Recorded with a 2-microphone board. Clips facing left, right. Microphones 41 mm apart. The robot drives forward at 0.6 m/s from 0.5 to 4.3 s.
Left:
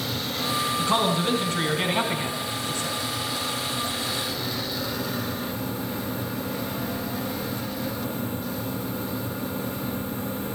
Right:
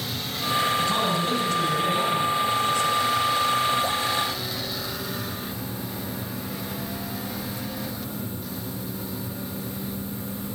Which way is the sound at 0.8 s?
35° left (ahead or behind).